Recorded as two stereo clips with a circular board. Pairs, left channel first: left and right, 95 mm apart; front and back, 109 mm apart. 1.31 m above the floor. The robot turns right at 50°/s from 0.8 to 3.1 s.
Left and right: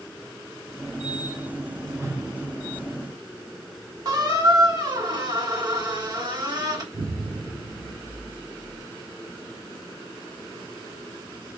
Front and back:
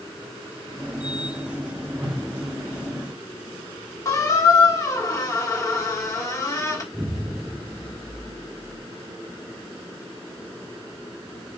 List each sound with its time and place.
2.0 s a whoosh: 150° right, 1.3 m; by 2.2 s 135° right, 1.3 m
4.0 s a squeak: 55° right, 1.4 m
6.9 s an explosion: 110° right, 0.9 m